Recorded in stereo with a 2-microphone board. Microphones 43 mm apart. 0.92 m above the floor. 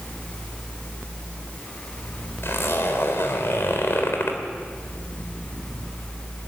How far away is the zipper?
About 3.5 m.